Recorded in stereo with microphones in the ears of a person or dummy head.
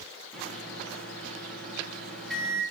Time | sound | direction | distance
0.3 | a microwave | 5° left (ahead or behind) | 1.1 m